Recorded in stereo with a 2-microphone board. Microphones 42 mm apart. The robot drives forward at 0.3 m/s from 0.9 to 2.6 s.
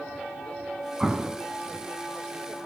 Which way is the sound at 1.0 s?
20° right (ahead or behind).